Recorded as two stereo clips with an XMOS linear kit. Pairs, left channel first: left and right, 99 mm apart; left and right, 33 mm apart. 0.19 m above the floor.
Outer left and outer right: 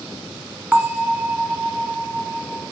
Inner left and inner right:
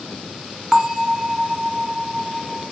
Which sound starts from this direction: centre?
A bell, at 0.7 s.